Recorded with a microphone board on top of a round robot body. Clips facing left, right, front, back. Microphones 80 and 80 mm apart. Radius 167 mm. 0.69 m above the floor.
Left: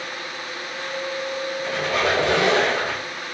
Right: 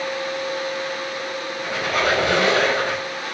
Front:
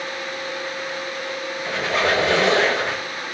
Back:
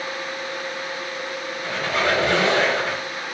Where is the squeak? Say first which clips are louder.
Right 1 dB, front 1 dB; 130° right, 1.8 m.